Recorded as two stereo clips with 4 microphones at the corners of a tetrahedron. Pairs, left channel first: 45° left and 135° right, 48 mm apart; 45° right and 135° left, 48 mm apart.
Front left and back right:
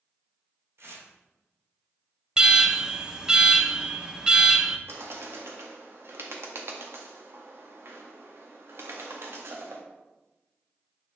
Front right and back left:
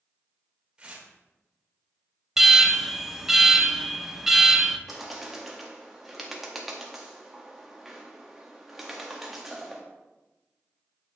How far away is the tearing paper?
About 3 m.